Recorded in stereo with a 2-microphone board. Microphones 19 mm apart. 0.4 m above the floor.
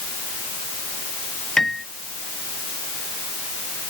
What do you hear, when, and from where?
1.6 s a piano: 20° left (ahead or behind)